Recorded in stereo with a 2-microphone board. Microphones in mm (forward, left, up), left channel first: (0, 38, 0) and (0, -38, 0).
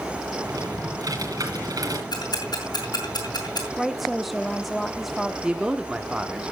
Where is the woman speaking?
Centre (ahead or behind), 0.7 m.